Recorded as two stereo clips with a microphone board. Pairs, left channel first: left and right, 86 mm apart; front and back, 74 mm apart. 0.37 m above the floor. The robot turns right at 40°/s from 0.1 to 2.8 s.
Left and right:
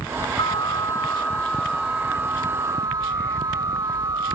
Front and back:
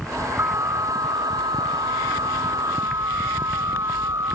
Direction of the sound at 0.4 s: 125° left.